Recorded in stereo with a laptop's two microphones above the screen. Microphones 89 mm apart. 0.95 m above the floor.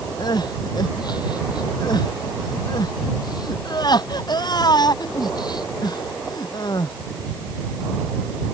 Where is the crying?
50° left (ahead or behind).